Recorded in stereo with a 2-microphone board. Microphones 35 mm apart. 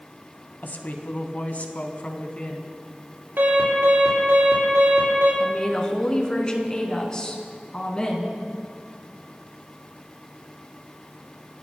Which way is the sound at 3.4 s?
75° right (ahead or behind).